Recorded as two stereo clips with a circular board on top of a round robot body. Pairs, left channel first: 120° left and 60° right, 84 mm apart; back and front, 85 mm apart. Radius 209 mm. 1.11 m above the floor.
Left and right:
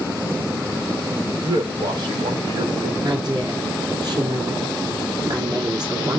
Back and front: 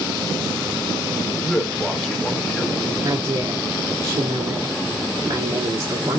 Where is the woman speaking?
20° right, 2.0 m.